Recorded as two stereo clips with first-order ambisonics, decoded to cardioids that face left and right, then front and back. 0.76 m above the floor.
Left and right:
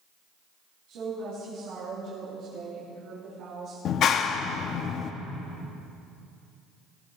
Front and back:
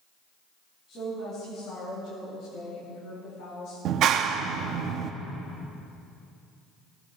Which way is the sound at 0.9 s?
60° right.